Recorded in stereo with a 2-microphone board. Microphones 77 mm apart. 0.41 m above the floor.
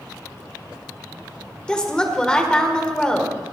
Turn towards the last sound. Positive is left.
turn(degrees=10)  # may be behind; listen again after turning